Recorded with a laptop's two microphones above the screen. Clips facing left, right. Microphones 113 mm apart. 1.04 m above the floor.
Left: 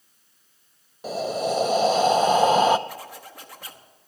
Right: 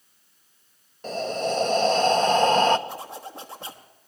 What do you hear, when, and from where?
1.0 s breathing: 10° left (ahead or behind), 0.6 m
2.9 s a zipper: 25° right (ahead or behind), 1.2 m